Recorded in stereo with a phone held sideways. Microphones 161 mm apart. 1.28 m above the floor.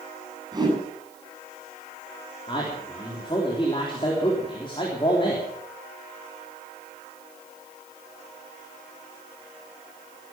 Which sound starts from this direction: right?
A whoosh, at 0.5 s.